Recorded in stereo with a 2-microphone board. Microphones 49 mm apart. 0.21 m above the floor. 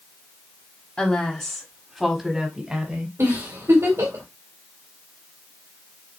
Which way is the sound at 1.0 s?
25° left (ahead or behind).